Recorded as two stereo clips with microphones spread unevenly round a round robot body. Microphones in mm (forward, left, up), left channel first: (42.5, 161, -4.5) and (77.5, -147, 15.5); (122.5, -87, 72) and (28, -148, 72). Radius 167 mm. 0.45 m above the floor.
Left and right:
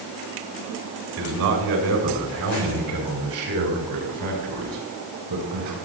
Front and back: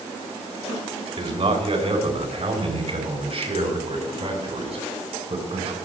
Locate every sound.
1.2 s a man speaking: 110° right, 5 m; by 5.8 s 115° right, 9 m